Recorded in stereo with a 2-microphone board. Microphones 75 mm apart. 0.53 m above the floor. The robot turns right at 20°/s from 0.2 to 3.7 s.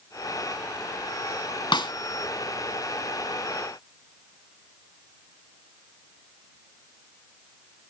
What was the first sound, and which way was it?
A snare drum, 70° left (ahead or behind).